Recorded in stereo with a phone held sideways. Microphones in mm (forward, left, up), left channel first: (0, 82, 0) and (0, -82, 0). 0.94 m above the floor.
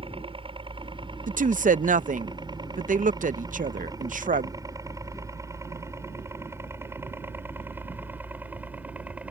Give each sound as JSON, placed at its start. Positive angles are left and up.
{"t": 0.0, "sound": "a helicopter", "side_deg": -35}
{"t": 1.3, "sound": "a woman speaking", "side_deg": -55}